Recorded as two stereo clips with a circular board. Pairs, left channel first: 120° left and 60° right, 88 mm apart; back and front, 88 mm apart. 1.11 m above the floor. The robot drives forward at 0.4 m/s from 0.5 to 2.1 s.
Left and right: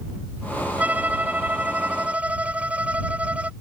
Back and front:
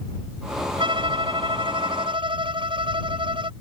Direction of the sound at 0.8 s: 15° left.